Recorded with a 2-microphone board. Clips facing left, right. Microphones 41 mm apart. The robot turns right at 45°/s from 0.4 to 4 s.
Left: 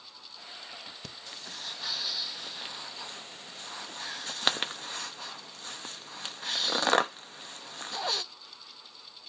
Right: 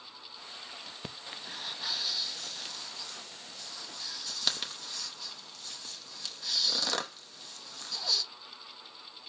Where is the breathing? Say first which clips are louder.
Right 1 dB; 25° right (ahead or behind), 0.8 m; by 8.2 s 40° left (ahead or behind), 0.8 m.